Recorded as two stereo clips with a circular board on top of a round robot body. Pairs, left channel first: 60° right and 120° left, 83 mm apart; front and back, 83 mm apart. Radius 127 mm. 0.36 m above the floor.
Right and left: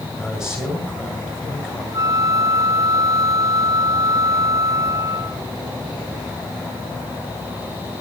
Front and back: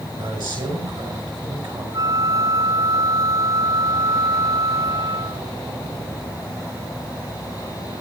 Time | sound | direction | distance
0.2 | a man speaking | 155° right | 6.5 m
1.9 | a flute | 150° left | 0.9 m